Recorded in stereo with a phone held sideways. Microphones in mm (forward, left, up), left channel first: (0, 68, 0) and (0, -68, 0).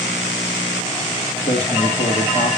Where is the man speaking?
55° left (ahead or behind), 1.5 m.